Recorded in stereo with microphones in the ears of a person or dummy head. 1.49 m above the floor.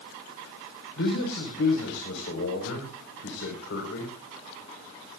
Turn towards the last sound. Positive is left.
turn(degrees=65)  # may be behind; listen again after turning